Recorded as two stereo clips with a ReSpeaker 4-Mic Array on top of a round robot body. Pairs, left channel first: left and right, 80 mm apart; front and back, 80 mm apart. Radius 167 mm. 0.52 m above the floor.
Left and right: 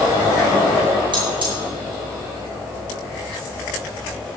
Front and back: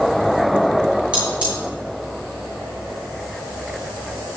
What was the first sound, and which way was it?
Cutlery clinking, 105° right.